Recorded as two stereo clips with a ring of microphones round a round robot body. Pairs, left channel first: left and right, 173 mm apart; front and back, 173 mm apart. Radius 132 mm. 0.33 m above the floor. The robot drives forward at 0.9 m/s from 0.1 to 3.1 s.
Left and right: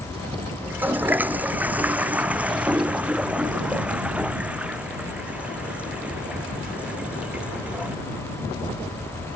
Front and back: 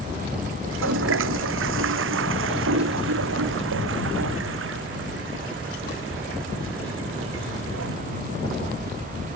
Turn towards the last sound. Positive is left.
turn(degrees=-175)